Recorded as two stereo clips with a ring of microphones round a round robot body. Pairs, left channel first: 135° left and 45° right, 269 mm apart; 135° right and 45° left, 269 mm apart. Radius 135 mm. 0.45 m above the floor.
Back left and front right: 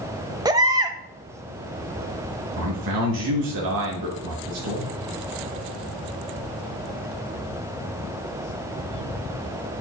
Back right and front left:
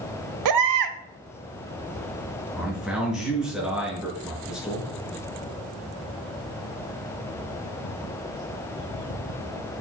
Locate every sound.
0.5 s a baby crying: 30° left, 1.0 m
2.6 s a man speaking: 40° right, 5.5 m